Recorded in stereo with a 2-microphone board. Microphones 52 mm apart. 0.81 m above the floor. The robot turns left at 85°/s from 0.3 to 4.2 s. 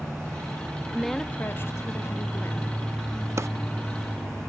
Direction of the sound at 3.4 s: 55° right (ahead or behind).